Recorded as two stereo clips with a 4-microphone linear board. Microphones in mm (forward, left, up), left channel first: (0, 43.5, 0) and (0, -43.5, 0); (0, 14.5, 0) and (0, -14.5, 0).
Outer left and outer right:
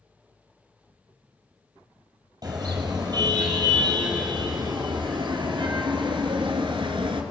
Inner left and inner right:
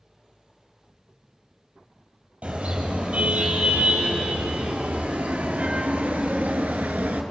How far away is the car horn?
About 5 m.